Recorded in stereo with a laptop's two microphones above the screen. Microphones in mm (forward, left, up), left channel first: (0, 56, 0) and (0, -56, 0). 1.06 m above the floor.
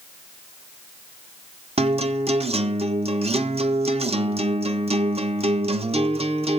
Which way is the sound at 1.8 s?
60° right (ahead or behind).